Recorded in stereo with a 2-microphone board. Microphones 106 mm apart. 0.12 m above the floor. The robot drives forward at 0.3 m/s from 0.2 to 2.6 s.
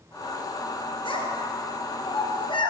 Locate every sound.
1.1 s a child speaking: 55° left (ahead or behind), 1.5 m; by 2.7 s 50° left (ahead or behind), 1.6 m